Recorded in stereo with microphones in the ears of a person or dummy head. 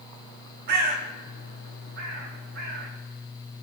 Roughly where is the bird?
Right.